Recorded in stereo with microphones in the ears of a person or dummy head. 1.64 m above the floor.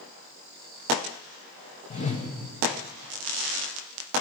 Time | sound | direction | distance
1.9 | a whoosh | 40° left (ahead or behind) | 1.4 m